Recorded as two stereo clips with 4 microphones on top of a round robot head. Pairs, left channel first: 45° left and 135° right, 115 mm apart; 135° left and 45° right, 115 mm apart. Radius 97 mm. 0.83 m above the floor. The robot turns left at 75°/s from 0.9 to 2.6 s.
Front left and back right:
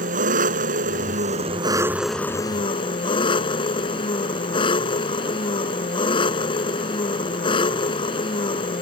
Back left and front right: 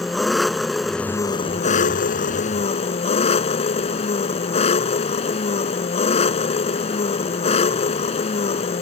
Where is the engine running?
135° right; by 8.8 s 95° left.